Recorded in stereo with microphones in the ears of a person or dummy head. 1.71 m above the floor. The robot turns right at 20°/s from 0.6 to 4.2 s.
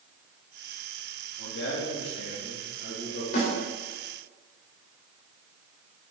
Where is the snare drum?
55° left (ahead or behind), 5 m.